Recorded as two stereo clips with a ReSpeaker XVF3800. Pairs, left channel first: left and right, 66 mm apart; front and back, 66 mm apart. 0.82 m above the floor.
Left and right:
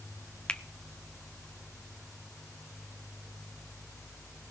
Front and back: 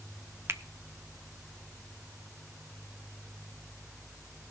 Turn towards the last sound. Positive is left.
turn(degrees=160)